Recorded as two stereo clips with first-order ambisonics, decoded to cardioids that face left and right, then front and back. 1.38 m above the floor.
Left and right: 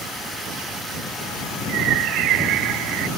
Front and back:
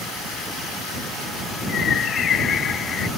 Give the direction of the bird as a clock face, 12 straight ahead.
2 o'clock.